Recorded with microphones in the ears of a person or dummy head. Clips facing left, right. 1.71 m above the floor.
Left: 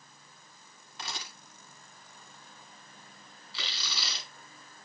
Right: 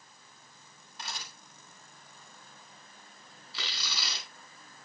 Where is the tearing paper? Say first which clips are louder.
Even; 50° right (ahead or behind), 4.5 m.